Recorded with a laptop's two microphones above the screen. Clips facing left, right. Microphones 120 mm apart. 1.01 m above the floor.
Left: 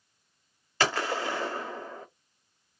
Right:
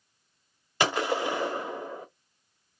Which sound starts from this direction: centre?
A gunshot, at 0.8 s.